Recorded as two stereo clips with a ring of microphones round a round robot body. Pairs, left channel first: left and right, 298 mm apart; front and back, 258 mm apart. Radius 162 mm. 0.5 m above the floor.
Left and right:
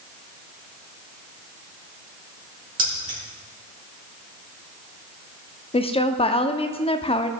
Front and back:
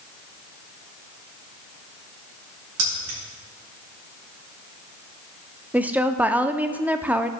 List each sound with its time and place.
2.8 s keys jangling: 155° right, 4 m
5.7 s a woman speaking: 110° left, 0.7 m